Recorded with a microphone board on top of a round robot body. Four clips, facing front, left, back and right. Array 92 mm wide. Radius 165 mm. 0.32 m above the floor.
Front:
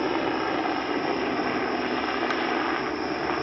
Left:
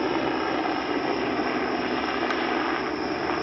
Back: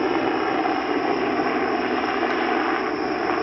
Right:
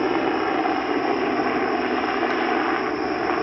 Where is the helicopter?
130° right.